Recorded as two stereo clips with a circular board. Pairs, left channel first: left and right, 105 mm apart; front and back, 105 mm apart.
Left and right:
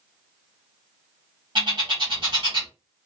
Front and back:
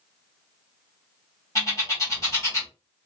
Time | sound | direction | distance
1.6 | a bird | 55° right | 1.4 m